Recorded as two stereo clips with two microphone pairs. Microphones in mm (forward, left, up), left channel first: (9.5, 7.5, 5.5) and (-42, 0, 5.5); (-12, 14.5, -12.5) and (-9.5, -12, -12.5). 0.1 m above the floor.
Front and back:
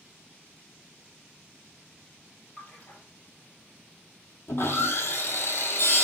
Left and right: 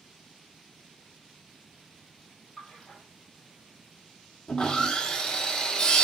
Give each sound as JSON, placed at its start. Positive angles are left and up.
{"t": 2.6, "sound": "a splash", "azimuth_deg": 40, "distance_m": 1.6}
{"t": 4.5, "sound": "sawing", "azimuth_deg": 35, "distance_m": 0.6}